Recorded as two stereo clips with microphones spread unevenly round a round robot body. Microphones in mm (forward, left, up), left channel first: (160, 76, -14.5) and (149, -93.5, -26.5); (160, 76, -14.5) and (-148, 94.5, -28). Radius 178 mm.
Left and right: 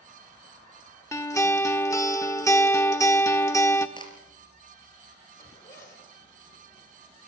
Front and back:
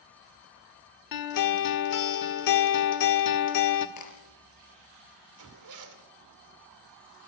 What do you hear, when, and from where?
1.1 s a guitar: 10° left, 1.6 m
4.0 s a crack: 25° left, 4.5 m
5.4 s a zipper: 155° left, 2.5 m